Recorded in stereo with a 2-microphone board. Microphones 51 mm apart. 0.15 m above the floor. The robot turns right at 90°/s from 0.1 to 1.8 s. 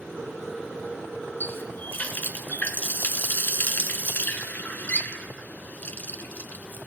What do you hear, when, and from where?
1.4 s a running tap: 50° left (ahead or behind), 1.0 m; by 6.9 s 35° left (ahead or behind), 1.0 m